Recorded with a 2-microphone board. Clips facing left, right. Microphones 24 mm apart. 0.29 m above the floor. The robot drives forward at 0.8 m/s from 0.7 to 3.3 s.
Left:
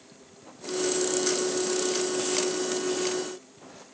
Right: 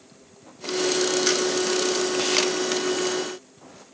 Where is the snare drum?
I don't hear a snare drum.